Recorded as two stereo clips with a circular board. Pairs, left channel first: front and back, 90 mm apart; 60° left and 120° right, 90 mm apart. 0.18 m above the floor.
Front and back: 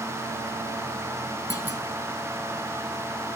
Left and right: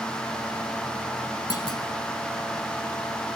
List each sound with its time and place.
1.5 s a clunk: 35° left, 1.9 m